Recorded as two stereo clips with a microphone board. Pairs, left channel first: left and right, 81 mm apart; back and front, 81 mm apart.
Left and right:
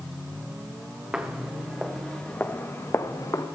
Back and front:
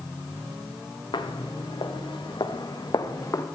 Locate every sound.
1.1 s footsteps: 170° right, 1.4 m; by 3.5 s 130° left, 1.3 m